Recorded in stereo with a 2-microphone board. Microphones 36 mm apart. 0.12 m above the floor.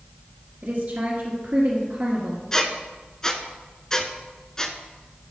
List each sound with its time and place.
0.6 s a woman speaking: 45° right (ahead or behind), 1.5 m
2.5 s a squeak: 15° left (ahead or behind), 0.6 m